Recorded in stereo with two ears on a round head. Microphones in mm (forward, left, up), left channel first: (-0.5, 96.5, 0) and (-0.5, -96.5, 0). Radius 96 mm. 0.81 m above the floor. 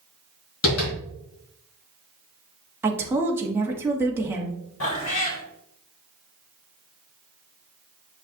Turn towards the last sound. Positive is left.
turn(degrees=70)  # may be behind; listen again after turning